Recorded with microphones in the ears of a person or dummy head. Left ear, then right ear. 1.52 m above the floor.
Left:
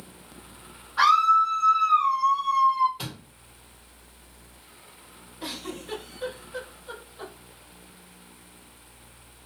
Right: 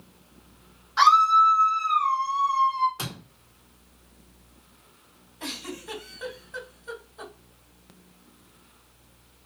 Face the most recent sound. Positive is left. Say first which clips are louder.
# even
turn(degrees=-60)  # may be behind; listen again after turning